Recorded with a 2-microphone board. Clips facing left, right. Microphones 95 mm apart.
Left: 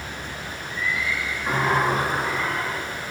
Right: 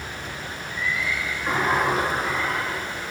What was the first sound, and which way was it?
A sliding door, centre (ahead or behind).